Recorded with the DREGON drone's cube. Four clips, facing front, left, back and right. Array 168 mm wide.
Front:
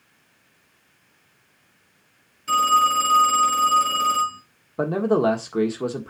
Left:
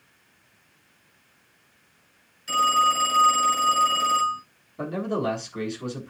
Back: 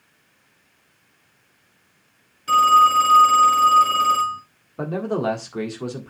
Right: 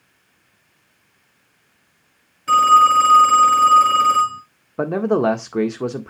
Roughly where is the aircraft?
I don't hear an aircraft.